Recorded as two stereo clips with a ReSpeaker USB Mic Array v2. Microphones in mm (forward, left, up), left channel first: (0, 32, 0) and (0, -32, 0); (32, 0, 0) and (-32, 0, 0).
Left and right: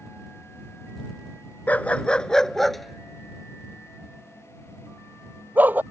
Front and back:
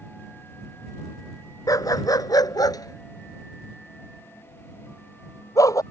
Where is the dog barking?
25° left; by 5.8 s 30° right.